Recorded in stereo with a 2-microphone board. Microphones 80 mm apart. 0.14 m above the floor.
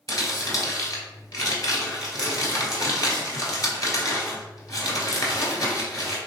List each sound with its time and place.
0.1 s crumpling: 45° left (ahead or behind), 1.3 m